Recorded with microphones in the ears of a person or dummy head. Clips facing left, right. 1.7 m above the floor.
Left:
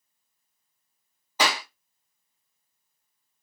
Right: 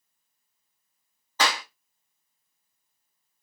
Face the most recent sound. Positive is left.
turn(degrees=15)  # may be behind; listen again after turning